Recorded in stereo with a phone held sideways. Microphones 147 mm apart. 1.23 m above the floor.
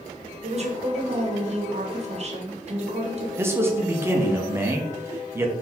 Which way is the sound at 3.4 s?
15° right (ahead or behind).